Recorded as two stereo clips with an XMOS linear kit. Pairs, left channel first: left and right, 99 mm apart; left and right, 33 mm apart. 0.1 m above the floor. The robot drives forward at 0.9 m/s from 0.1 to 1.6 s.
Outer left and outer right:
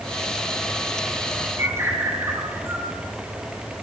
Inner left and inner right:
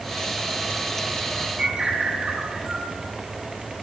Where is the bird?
25° right (ahead or behind), 2 m.